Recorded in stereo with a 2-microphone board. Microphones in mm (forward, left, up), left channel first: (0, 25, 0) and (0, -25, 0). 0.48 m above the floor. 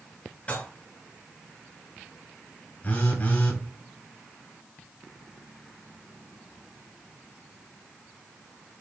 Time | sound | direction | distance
0.5 | dishes clattering | 30° left (ahead or behind) | 4.5 m
2.8 | a phone buzzing | 35° left (ahead or behind) | 6 m